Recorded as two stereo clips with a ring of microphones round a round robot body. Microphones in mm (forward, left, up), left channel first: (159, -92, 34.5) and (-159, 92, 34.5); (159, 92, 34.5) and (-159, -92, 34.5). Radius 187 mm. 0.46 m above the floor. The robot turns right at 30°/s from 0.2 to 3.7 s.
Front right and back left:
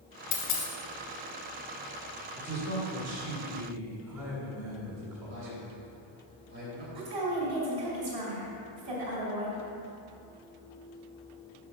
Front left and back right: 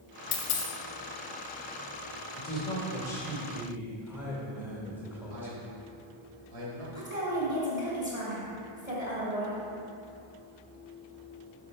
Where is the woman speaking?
130° left, 2.5 m.